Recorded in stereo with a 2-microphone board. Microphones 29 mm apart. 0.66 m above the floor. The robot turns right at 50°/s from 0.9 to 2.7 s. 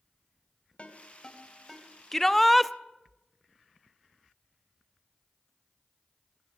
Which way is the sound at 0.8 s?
40° left (ahead or behind).